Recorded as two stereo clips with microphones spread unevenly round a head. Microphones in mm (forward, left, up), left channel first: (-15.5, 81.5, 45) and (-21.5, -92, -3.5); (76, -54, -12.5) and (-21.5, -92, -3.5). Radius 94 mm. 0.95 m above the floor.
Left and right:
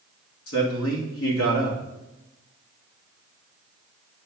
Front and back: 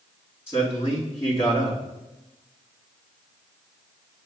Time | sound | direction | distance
0.5 | a man speaking | 95° left | 1.7 m